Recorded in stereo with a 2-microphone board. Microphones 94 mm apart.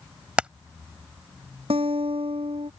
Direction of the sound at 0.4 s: 10° right (ahead or behind).